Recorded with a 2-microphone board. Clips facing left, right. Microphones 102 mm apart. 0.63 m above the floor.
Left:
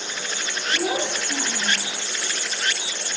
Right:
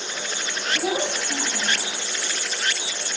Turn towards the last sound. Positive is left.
turn(degrees=85)